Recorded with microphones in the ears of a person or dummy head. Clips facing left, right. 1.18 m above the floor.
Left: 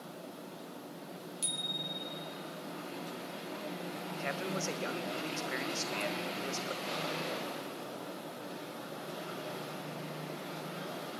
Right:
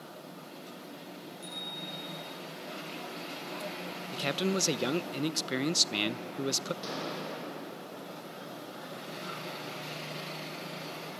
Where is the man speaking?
50° right (ahead or behind), 0.7 m.